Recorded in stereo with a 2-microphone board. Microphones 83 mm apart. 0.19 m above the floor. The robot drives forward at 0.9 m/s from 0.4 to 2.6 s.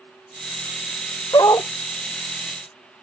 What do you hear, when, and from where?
1.3 s a dog barking: 55° left (ahead or behind); by 1.7 s 45° left (ahead or behind)